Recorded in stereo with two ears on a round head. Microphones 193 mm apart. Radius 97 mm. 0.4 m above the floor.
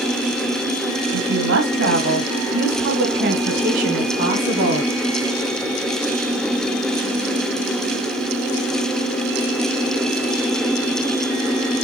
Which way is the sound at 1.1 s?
65° right (ahead or behind).